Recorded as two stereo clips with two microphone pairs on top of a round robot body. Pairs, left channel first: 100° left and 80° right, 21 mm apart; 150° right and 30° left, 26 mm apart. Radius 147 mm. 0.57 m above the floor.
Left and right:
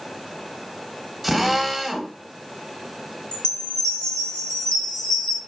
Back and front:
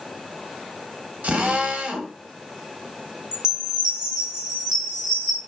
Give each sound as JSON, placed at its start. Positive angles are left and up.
{"t": 1.2, "sound": "a drill", "azimuth_deg": 10, "distance_m": 1.5}
{"t": 3.3, "sound": "a chime", "azimuth_deg": 85, "distance_m": 2.5}